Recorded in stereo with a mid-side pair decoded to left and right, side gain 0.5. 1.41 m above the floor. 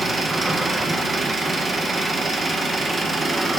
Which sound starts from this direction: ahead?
An engine running, at 0.0 s.